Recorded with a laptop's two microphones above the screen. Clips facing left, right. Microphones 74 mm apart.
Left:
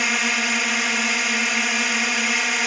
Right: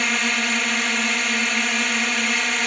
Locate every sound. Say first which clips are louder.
0.0 s a drone: even; 5° left (ahead or behind)